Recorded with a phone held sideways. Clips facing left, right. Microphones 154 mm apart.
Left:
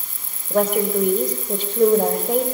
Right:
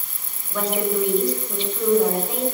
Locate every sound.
0.5 s a woman speaking: 50° left (ahead or behind), 6 m